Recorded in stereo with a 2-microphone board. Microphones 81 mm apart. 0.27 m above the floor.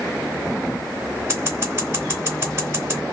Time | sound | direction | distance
1.3 | scissors | 35° right (ahead or behind) | 1.9 m